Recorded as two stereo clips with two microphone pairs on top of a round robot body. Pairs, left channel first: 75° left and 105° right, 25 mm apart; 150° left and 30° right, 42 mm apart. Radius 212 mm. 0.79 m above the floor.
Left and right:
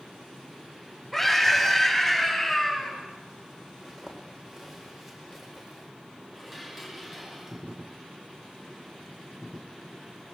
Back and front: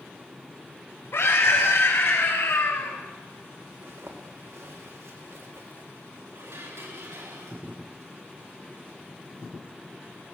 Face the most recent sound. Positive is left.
turn(degrees=-25)